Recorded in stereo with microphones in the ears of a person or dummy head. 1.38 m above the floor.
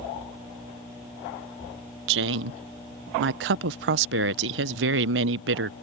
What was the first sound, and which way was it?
A woman speaking, 65° right (ahead or behind).